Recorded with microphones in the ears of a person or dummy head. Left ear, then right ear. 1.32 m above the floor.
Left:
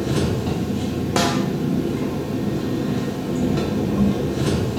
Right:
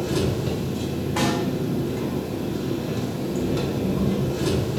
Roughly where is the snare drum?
Left.